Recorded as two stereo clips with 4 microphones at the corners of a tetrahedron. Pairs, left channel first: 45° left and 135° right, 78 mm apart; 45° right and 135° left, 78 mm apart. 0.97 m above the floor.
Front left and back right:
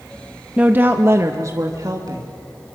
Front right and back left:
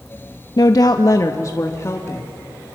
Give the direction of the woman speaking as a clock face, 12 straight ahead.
2 o'clock.